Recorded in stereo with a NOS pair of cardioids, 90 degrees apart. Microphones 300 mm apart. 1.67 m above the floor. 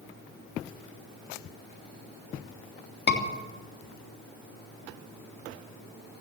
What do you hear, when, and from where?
3.1 s a scream: 35° left, 3 m